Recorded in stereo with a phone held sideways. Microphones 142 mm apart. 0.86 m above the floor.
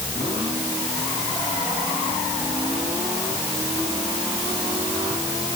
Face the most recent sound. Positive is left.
No sound to turn to.